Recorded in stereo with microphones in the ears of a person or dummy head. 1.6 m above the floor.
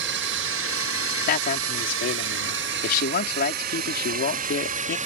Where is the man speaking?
55° left (ahead or behind).